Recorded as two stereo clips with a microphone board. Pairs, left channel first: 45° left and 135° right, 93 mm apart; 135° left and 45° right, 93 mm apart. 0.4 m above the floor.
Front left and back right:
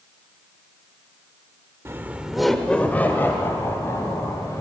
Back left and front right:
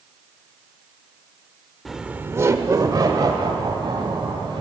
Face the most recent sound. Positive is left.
turn(degrees=-10)